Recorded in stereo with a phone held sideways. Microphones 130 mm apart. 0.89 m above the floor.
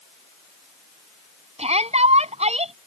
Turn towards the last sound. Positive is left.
turn(degrees=-55)  # may be behind; listen again after turning